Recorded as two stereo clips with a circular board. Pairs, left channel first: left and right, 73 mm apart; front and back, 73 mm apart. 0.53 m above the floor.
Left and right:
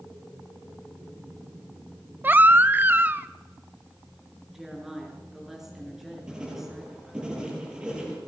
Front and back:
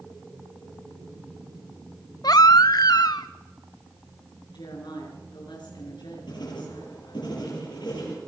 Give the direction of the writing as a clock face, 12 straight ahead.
12 o'clock.